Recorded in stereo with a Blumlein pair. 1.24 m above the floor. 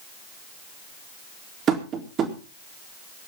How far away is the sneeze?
I don't hear a sneeze.